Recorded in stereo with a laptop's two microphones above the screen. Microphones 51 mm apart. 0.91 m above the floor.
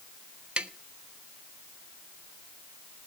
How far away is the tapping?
About 1.1 m.